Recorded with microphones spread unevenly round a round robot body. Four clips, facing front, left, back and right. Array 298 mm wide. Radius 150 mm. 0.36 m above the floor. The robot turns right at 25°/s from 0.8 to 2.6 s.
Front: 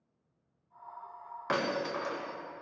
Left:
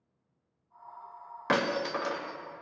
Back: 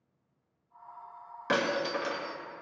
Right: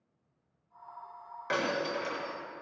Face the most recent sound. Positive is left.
turn(degrees=120)